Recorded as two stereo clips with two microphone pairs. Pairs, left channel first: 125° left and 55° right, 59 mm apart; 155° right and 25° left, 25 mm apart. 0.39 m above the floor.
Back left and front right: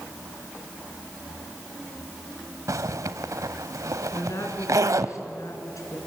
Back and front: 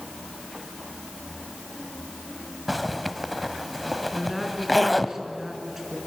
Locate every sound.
2.7 s a zipper: 60° right, 0.9 m
4.1 s a woman speaking: 105° left, 4 m